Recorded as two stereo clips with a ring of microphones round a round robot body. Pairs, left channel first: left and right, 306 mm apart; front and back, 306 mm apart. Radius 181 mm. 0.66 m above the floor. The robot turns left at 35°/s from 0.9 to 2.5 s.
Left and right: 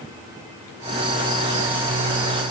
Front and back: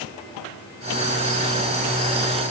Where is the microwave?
No microwave in this recording.